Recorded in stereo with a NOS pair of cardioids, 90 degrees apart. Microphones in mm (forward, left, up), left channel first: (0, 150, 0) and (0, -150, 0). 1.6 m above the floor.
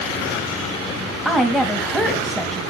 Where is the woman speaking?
Straight ahead, 1.9 m.